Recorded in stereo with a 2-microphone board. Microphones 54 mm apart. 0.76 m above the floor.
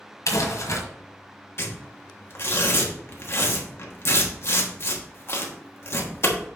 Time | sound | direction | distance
0.3 | crumpling | 70° left (ahead or behind) | 1.6 m
1.6 | tearing paper | 50° left (ahead or behind) | 1.2 m